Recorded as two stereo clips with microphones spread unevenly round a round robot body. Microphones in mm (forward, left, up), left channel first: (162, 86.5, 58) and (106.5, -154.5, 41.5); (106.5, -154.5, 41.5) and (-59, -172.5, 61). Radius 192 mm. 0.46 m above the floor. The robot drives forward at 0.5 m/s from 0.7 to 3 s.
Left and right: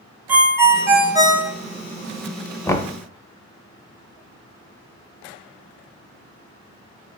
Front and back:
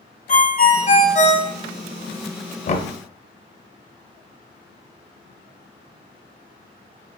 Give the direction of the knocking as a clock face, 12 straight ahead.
12 o'clock.